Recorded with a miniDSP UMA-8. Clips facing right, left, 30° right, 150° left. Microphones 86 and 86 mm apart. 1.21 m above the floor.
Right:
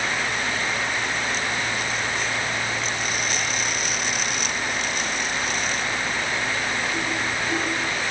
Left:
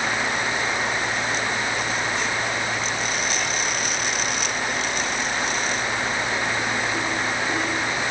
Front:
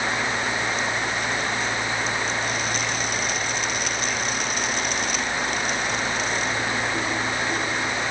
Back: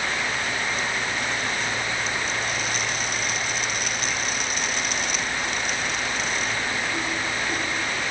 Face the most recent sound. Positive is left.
No sound to turn to.